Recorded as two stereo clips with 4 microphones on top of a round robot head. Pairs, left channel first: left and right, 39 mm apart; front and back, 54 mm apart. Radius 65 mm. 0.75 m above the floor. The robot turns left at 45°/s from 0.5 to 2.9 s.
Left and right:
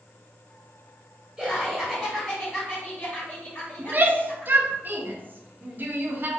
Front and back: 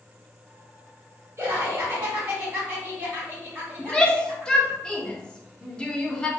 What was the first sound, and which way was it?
Laughter, 155° right.